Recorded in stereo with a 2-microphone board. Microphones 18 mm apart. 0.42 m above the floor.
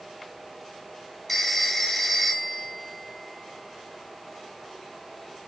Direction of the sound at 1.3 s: 5° left (ahead or behind).